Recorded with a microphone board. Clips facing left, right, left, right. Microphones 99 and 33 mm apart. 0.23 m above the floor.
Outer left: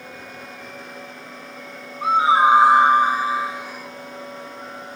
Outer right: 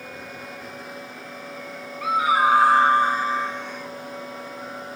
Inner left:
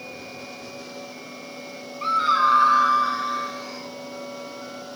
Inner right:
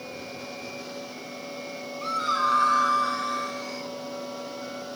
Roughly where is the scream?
Left.